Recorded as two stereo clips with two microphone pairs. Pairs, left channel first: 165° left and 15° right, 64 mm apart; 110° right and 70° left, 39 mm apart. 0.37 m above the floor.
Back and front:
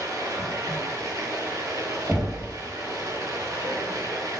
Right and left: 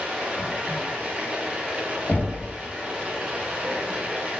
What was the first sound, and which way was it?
Running water, 5° left.